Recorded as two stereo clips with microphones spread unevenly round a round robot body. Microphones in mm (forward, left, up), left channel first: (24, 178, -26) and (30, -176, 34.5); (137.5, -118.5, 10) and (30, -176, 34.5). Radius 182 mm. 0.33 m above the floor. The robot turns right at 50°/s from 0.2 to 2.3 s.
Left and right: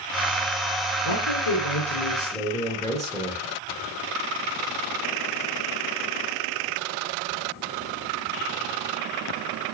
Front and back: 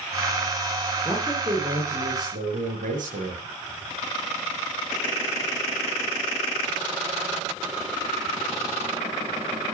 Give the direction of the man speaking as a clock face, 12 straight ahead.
8 o'clock.